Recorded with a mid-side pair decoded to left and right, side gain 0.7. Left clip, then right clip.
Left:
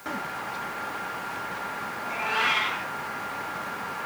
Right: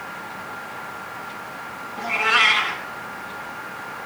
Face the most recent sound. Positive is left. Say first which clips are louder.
# right 9 dB
turn(degrees=-55)